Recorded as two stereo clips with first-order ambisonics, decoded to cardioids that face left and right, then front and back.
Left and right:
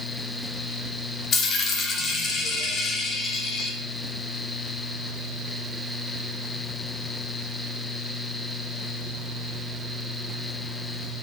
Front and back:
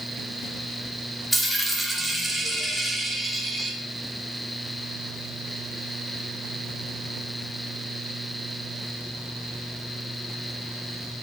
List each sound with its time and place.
1.3 s a dropped coin: 95° left, 1.0 m